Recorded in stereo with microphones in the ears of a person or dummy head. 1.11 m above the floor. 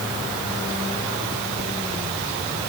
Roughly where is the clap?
I don't hear a clap.